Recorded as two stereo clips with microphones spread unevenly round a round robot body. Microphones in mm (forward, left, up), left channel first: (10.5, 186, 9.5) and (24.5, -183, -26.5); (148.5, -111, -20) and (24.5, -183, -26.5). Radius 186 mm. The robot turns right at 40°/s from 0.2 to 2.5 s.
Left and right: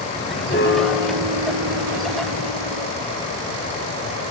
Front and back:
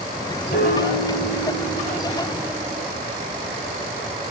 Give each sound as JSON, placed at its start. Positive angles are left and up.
{"t": 0.5, "sound": "a piano", "azimuth_deg": 25, "distance_m": 6.5}